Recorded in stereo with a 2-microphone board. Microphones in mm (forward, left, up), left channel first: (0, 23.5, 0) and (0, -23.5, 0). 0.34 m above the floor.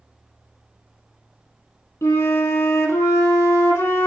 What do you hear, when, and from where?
2.0 s a flute: 80° left, 0.8 m